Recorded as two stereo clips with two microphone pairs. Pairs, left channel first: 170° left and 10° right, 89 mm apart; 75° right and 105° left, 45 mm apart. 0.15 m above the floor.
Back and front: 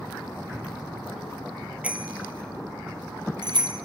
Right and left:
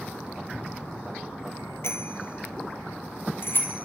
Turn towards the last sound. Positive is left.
turn(degrees=-35)